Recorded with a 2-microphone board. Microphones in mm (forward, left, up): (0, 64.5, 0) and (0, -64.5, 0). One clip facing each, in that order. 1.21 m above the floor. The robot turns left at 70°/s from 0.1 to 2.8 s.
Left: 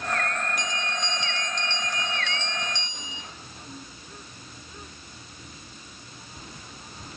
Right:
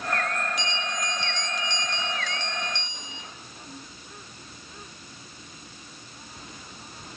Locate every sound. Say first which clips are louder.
0.6 s a bell: even; 65° left, 0.5 m; by 3.2 s 90° right, 0.5 m